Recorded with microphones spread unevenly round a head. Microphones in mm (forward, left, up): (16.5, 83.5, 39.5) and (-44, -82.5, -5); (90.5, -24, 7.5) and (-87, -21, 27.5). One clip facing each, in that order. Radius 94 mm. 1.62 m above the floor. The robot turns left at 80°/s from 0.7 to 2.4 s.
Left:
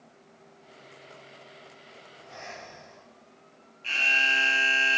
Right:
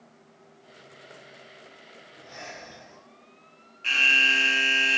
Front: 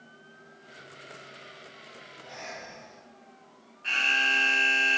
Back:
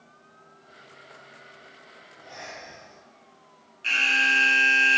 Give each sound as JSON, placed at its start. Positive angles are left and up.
{"t": 2.2, "sound": "breathing", "azimuth_deg": -80, "distance_m": 6.0}
{"t": 3.8, "sound": "an alarm", "azimuth_deg": -125, "distance_m": 2.5}